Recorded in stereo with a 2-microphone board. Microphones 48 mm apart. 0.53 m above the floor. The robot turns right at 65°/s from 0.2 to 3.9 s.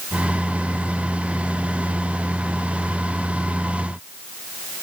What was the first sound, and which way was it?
Only background noise.